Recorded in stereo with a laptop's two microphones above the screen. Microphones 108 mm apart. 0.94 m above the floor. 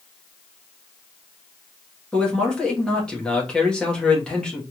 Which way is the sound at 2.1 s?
10° left (ahead or behind).